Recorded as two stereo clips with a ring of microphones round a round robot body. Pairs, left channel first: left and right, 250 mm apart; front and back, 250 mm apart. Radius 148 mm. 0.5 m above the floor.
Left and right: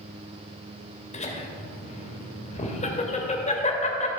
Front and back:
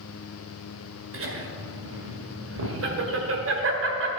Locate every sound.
1.1 s laughter: 150° left, 2.0 m